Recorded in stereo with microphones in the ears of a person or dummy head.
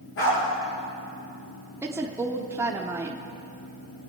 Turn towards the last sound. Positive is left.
turn(degrees=-10)  # may be behind; listen again after turning